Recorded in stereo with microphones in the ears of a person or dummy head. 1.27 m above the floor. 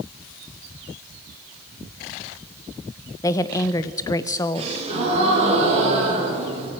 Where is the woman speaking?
20° left (ahead or behind), 0.7 m.